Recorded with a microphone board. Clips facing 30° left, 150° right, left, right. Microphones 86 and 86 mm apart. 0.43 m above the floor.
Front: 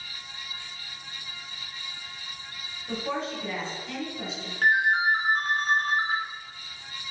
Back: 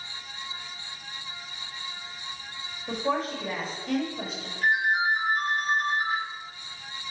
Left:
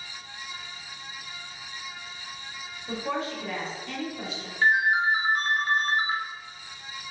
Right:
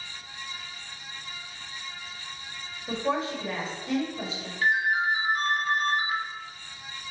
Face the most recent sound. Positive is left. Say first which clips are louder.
# front 2 dB, left 3 dB
turn(degrees=30)